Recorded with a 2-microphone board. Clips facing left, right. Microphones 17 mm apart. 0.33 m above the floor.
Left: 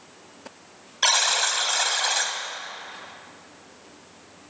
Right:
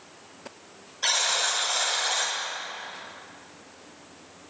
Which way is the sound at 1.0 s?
50° left (ahead or behind).